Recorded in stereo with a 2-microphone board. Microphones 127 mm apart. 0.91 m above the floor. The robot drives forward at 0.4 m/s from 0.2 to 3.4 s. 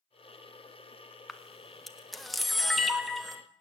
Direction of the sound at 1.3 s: Centre (ahead or behind).